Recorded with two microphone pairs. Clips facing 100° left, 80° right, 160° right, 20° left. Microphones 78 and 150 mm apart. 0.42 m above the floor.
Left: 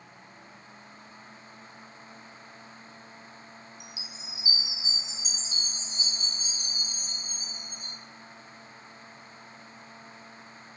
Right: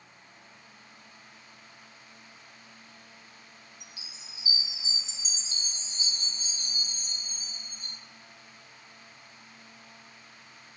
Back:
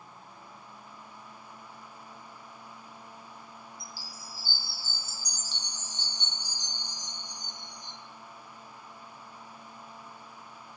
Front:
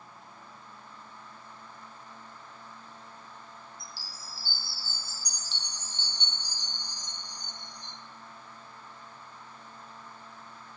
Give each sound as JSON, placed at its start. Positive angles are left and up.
{"t": 3.8, "sound": "a chime", "azimuth_deg": 175, "distance_m": 0.8}